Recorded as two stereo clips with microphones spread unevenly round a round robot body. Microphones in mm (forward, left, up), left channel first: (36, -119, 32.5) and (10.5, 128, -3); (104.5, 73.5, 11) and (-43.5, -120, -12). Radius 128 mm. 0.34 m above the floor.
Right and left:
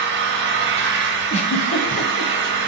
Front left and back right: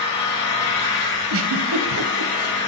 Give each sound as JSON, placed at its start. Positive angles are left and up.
{"t": 0.0, "sound": "an engine running", "azimuth_deg": 95, "distance_m": 1.7}
{"t": 1.3, "sound": "a giggle", "azimuth_deg": -150, "distance_m": 0.8}